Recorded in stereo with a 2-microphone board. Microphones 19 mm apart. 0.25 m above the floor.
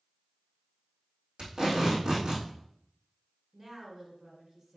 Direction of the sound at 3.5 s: 30° right (ahead or behind).